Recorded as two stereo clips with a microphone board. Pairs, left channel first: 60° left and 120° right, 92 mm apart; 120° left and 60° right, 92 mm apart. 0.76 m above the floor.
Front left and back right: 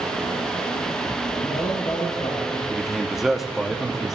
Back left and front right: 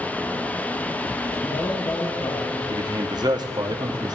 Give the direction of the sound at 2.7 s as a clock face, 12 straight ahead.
1 o'clock.